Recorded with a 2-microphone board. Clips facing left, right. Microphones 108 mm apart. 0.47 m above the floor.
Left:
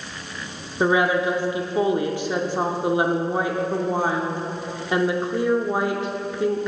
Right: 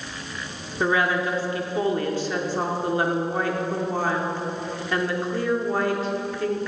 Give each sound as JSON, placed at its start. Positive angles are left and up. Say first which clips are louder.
{"t": 0.8, "sound": "a woman speaking", "louder": "left 3 dB", "side_deg": 20, "distance_m": 0.7}